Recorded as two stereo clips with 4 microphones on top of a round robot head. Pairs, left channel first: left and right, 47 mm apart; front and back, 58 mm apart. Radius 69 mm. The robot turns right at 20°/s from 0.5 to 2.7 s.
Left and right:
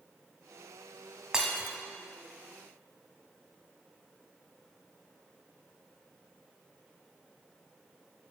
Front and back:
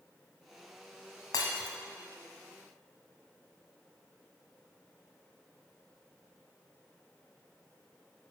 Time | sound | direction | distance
1.3 | breaking glass | 15° right | 1.2 m